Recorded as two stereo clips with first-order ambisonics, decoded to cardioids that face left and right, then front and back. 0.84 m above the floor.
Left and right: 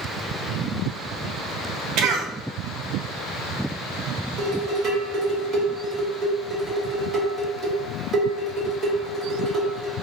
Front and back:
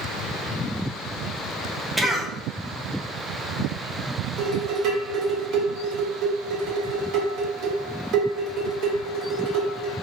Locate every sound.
2.0 s a cough: 100° right, 0.5 m
4.4 s dishes clattering: 150° right, 1.3 m